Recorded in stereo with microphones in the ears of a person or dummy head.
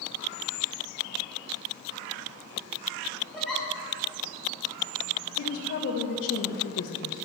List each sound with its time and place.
3.3 s a giggle: centre (ahead or behind), 5 m
5.4 s a woman speaking: 80° left, 1.4 m